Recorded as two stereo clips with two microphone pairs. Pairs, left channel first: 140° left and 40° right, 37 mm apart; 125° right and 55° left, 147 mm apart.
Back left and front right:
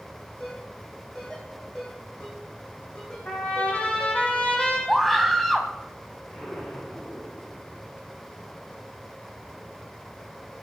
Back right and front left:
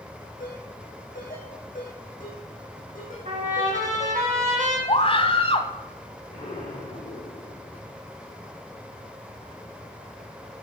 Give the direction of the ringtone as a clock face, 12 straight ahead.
5 o'clock.